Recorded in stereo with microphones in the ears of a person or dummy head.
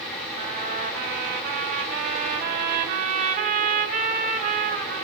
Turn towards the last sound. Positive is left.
turn(degrees=-45)  # may be behind; listen again after turning